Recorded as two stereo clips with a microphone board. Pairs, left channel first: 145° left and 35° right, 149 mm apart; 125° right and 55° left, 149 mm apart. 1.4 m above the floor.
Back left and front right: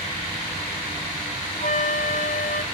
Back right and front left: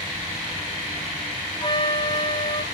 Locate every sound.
1.6 s a flute: 175° left, 0.9 m